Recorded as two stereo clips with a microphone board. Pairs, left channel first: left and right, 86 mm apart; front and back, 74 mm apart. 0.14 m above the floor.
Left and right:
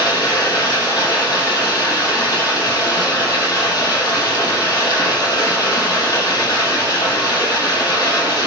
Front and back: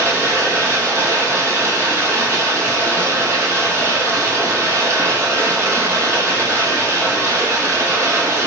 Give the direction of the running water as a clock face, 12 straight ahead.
8 o'clock.